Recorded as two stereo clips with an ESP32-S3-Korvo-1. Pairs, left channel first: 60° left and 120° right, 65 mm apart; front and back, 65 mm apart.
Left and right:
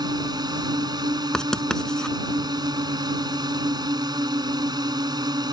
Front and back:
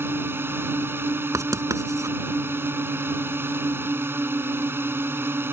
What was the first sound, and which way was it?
A drone, 125° right.